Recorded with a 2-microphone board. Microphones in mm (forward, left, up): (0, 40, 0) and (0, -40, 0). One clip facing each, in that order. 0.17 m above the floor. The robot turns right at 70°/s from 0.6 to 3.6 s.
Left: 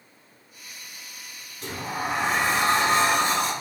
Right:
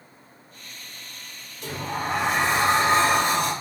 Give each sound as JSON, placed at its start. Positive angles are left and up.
{"t": 1.6, "sound": "a sliding door", "azimuth_deg": 140, "distance_m": 2.0}